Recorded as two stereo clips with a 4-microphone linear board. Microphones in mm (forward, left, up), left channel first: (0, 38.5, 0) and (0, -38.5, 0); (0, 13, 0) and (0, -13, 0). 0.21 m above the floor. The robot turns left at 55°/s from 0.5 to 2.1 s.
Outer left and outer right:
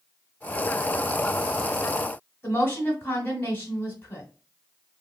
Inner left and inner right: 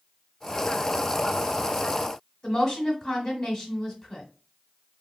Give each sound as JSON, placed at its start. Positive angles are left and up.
{"t": 2.4, "sound": "a woman speaking", "side_deg": 25, "distance_m": 1.4}